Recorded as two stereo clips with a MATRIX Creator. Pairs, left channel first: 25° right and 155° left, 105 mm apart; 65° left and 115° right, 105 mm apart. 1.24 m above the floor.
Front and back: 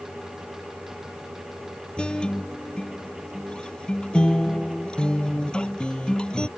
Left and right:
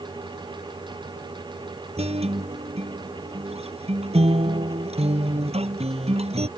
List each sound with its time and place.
2.0 s a guitar: 105° right